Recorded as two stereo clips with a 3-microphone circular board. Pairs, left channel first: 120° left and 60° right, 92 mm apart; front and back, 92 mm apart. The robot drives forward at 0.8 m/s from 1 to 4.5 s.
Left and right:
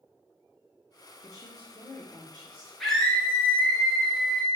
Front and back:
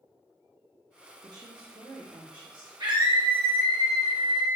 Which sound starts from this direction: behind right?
A scream, at 2.8 s.